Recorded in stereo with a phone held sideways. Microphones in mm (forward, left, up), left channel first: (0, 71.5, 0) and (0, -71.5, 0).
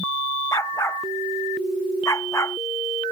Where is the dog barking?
20° left (ahead or behind).